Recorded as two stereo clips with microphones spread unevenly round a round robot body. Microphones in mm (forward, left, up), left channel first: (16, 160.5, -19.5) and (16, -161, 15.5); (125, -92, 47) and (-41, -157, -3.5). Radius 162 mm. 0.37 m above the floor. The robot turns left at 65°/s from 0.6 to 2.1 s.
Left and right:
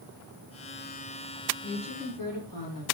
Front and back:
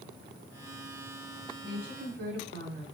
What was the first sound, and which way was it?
A woman speaking, 165° right.